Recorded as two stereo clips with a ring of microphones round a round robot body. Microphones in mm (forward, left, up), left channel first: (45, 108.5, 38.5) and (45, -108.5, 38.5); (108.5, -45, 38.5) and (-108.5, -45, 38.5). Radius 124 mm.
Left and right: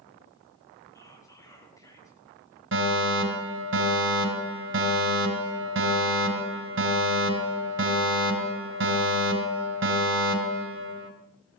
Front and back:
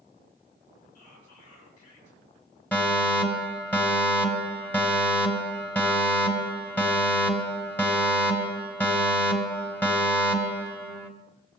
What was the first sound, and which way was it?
Whispering, 15° left.